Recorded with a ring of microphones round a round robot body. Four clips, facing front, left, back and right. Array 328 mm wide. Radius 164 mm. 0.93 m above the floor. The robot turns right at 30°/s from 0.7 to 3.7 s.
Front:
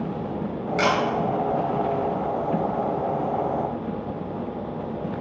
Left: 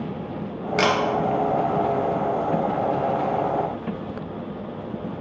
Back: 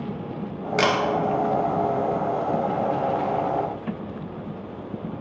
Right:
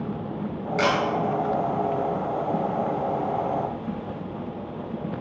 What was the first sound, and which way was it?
A camera shutter, 135° left.